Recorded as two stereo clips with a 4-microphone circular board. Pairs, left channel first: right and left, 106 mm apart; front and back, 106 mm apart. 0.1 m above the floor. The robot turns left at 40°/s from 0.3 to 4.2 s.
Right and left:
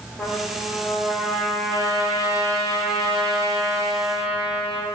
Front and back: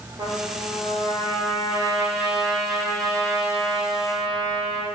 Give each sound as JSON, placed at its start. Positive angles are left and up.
{"t": 0.2, "sound": "a trumpet", "azimuth_deg": -175, "distance_m": 1.6}